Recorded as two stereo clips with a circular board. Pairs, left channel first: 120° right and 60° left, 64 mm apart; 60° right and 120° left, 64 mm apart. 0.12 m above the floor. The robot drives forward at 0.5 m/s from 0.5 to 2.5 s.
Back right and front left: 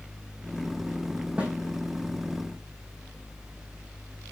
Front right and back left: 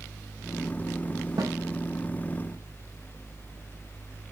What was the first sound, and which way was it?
A snare drum, 130° left.